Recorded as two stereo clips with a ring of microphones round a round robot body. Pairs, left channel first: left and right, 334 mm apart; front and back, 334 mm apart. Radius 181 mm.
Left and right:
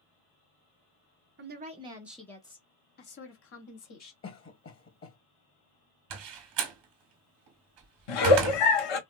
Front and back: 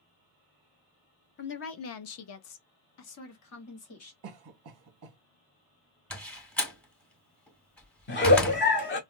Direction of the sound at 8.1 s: 65° left.